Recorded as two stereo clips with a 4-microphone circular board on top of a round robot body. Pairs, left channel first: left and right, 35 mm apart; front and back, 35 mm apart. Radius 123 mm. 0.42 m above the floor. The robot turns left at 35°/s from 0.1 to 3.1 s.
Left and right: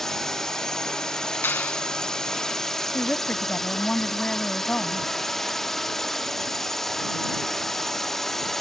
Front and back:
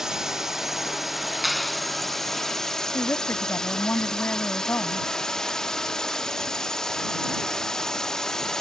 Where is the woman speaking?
35° left; by 5.1 s 30° left.